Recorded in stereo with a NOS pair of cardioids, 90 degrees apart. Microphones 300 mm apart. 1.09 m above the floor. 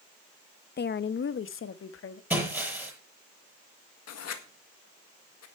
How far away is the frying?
No frying in this recording.